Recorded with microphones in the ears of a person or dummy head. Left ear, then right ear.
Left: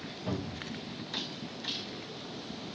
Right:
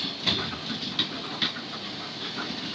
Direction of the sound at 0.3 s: 20° right (ahead or behind).